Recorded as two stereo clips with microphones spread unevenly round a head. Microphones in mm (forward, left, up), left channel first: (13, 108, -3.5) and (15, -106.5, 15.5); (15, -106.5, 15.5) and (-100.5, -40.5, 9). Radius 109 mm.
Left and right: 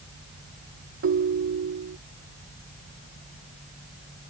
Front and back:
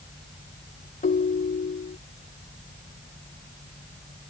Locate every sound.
1.0 s a ringtone: 55° right